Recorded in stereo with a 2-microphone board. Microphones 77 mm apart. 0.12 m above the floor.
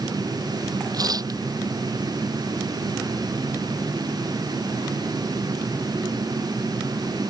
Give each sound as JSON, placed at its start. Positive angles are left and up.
{"t": 0.9, "sound": "tearing paper", "side_deg": -55}